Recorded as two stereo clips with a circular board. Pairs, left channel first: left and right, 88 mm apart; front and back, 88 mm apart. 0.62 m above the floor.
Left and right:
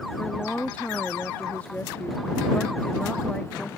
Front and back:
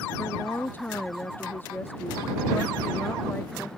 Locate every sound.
0.2 s a woman speaking: 35° left